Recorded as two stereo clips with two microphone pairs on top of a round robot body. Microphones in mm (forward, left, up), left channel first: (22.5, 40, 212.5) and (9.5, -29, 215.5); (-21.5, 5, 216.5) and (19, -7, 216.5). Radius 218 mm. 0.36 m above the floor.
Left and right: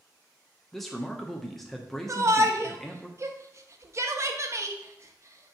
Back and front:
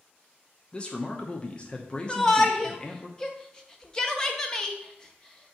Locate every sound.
0.7 s a man speaking: 155° left, 1.1 m
2.1 s a shout: 125° right, 0.9 m